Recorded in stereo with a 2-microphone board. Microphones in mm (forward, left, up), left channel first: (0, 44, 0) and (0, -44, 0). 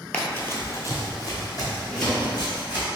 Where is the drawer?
25° left (ahead or behind), 1.4 m.